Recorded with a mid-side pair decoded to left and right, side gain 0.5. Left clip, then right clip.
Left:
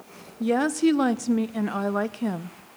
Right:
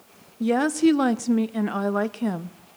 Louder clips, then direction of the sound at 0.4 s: Right 2 dB; 5° right.